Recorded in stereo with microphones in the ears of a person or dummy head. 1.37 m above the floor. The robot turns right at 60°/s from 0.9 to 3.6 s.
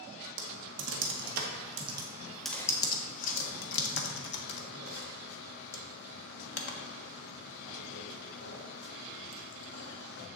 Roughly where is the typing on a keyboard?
Right.